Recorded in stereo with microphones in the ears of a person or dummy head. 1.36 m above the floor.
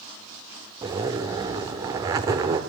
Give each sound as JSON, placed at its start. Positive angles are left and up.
{"t": 0.8, "sound": "a zipper", "side_deg": -20, "distance_m": 1.1}